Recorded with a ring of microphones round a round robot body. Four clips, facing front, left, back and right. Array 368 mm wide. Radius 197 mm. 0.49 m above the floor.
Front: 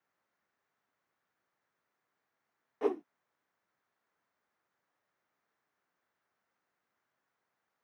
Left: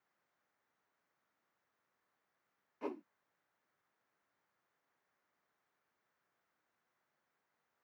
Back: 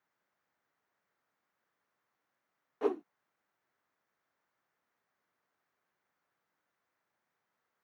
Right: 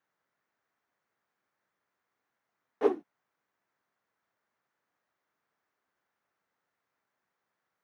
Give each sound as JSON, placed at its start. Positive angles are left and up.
{"t": 2.8, "sound": "a whoosh", "azimuth_deg": -90}